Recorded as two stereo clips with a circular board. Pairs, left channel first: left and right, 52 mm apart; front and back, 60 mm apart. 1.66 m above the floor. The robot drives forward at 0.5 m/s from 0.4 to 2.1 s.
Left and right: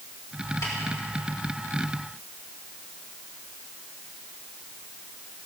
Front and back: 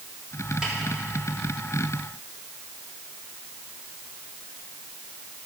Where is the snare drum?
100° left, 3.5 m.